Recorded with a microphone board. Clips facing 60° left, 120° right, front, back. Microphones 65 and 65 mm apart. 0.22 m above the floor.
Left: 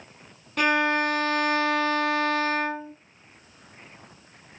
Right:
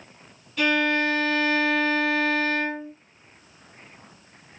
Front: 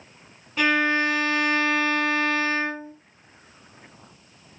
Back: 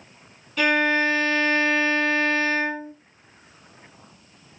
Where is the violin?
60° left, 2 m.